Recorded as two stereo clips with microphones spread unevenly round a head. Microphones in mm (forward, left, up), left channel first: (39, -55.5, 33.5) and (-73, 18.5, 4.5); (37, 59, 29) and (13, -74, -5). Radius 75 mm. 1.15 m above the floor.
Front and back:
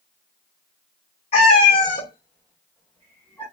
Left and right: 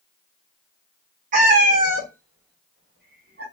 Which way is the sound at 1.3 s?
70° right.